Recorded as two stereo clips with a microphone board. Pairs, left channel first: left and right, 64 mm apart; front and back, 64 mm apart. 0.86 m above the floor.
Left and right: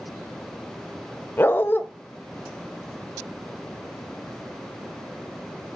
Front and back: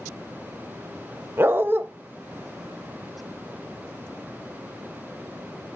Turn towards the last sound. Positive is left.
turn(degrees=135)